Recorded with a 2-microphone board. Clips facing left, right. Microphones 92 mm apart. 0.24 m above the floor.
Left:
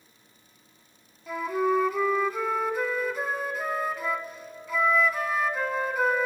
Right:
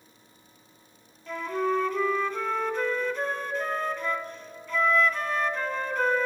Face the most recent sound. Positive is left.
turn(degrees=10)  # may be behind; listen again after turning